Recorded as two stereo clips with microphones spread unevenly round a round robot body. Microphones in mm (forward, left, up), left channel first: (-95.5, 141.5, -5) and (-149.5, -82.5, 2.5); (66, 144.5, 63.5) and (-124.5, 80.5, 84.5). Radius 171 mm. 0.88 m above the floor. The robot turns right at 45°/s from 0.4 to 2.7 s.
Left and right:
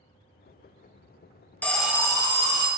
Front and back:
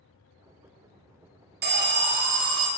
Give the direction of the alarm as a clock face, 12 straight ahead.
7 o'clock.